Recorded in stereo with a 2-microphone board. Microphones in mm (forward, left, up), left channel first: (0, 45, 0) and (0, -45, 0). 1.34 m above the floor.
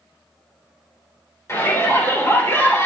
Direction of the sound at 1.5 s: 30° left (ahead or behind).